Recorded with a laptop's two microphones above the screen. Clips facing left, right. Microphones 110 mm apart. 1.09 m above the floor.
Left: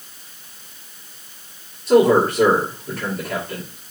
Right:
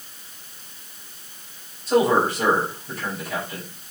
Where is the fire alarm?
I don't hear a fire alarm.